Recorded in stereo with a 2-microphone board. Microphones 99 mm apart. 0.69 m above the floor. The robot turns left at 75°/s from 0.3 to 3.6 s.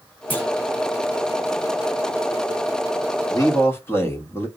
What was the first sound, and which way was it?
A clunk, 20° left (ahead or behind).